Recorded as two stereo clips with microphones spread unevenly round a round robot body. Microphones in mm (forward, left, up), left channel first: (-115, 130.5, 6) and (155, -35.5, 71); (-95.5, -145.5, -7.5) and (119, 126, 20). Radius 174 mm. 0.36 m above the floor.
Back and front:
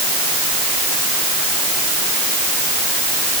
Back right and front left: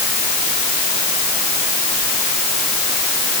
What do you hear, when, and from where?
Only background noise.